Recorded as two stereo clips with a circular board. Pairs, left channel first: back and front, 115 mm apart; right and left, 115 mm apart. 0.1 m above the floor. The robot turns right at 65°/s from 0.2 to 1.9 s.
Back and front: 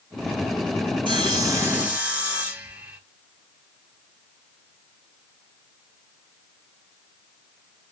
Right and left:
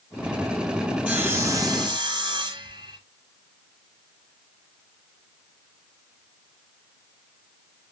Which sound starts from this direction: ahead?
Sawing, at 1.1 s.